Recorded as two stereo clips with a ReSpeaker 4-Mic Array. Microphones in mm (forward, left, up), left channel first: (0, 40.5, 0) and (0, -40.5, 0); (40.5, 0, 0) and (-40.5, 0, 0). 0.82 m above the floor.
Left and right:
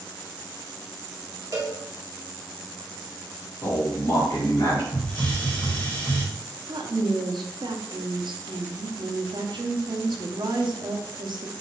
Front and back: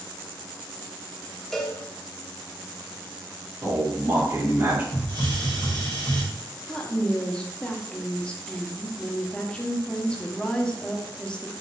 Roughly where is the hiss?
Ahead left.